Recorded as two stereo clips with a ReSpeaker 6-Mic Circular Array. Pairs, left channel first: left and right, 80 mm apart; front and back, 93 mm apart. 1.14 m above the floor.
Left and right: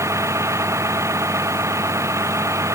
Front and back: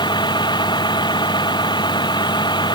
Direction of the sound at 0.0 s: 35° right.